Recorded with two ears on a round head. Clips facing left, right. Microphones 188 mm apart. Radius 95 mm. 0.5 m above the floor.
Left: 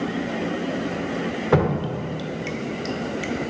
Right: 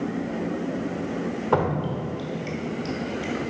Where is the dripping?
25° left (ahead or behind), 0.8 m.